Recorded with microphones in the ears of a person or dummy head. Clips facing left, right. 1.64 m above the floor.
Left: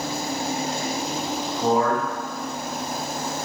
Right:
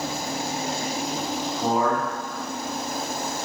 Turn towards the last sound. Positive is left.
turn(degrees=-10)  # may be behind; listen again after turning